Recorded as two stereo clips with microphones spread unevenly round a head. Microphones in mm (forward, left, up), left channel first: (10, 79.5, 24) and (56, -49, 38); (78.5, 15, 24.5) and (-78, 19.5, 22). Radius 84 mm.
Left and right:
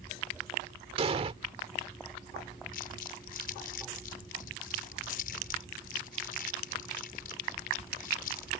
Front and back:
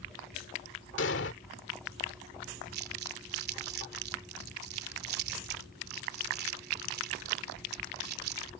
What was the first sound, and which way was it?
An explosion, 25° right.